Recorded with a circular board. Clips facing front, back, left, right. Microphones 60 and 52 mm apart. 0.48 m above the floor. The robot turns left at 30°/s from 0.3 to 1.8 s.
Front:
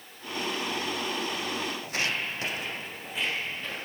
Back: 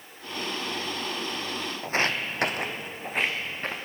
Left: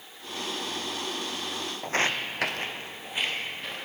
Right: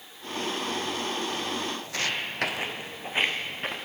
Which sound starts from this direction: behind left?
Footsteps, at 1.8 s.